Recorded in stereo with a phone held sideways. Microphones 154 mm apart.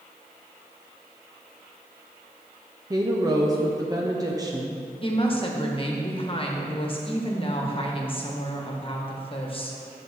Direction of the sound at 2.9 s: 25° right (ahead or behind).